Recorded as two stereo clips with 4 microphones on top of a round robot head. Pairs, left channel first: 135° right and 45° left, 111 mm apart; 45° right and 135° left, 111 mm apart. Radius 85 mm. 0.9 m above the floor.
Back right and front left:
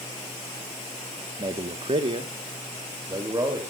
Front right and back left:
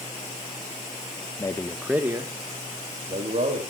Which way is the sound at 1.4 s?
5° left.